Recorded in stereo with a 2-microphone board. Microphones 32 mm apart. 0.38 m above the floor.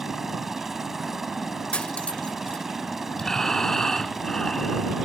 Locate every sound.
0.0 s a helicopter: 10° right (ahead or behind)
1.7 s cutlery clinking: 35° left (ahead or behind)
3.2 s breathing: 15° left (ahead or behind)